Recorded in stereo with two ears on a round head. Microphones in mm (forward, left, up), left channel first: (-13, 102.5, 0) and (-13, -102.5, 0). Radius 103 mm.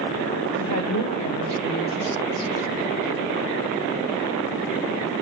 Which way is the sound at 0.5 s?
70° left (ahead or behind).